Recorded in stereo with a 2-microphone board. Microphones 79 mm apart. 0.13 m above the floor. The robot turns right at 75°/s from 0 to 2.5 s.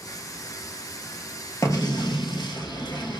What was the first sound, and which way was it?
An explosion, 45° left.